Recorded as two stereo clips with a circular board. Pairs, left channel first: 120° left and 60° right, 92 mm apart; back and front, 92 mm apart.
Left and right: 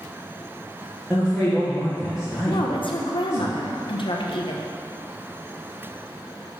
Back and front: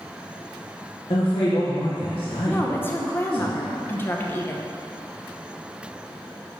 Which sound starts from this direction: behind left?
A woman speaking, at 2.5 s.